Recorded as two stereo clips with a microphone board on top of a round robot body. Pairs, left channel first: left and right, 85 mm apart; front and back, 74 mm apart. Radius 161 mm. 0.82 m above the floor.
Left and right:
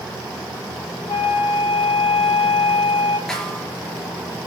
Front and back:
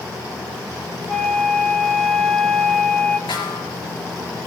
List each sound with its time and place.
1.1 s a flute: 85° left, 5 m
3.3 s a snare drum: 5° left, 5 m